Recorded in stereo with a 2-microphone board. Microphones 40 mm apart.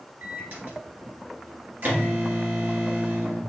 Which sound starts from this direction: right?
A microwave, at 0.2 s.